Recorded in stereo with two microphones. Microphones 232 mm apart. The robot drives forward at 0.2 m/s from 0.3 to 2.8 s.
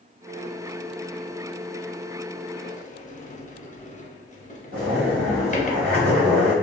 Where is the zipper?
45° right (ahead or behind), 0.9 m.